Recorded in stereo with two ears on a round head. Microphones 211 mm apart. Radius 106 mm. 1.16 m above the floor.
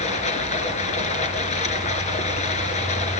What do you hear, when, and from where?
0.0 s running water: 30° left (ahead or behind), 2.5 m